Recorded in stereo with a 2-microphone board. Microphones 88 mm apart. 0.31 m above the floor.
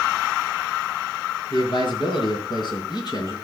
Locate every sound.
1.5 s a man speaking: 65° left (ahead or behind), 5.5 m; by 3.4 s 45° left (ahead or behind), 3.5 m